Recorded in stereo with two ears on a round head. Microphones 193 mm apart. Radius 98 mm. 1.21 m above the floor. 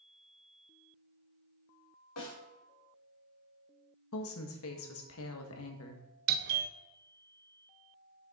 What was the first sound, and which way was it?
A snare drum, 75° left (ahead or behind).